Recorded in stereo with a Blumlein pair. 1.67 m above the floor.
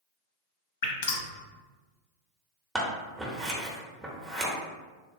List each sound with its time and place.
0.8 s dripping: 55° left, 0.6 m
2.8 s scissors: 10° right, 0.8 m